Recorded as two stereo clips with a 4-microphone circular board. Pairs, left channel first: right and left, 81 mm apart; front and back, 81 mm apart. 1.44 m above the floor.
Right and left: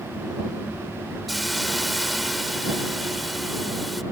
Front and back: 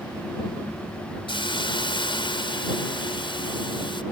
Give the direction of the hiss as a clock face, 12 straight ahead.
12 o'clock.